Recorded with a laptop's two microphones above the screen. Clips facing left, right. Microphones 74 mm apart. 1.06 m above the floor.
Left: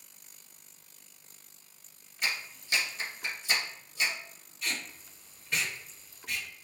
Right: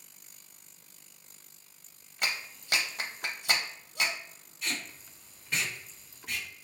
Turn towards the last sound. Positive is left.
turn(degrees=-5)  # may be behind; listen again after turning